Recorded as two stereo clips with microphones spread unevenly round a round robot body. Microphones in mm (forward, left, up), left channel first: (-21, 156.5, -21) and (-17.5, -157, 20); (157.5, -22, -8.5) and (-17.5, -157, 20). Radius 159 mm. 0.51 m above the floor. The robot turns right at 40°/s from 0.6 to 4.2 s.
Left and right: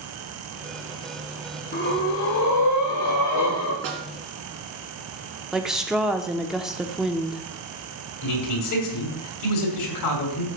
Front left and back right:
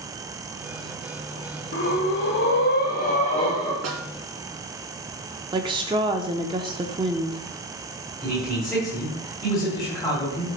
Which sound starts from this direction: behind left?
A man speaking, at 8.2 s.